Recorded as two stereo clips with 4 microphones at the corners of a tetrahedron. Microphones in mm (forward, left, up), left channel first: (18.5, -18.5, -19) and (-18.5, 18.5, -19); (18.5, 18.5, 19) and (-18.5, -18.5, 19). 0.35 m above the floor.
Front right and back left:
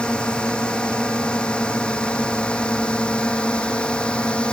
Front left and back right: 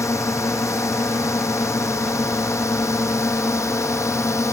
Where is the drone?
30° left.